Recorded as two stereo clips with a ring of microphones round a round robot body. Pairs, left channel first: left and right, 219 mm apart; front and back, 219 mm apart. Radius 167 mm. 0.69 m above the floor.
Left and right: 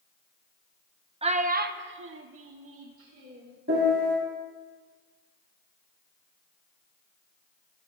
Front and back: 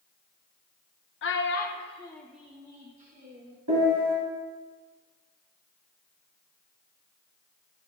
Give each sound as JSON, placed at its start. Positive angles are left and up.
{"t": 1.2, "sound": "a child speaking", "azimuth_deg": -25, "distance_m": 1.0}
{"t": 3.7, "sound": "a piano", "azimuth_deg": -145, "distance_m": 3.0}